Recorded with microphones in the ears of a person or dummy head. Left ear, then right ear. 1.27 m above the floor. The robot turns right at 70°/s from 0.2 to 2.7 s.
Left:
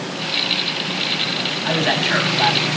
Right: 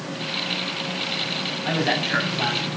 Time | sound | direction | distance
1.6 | a man speaking | 10° right | 9.5 m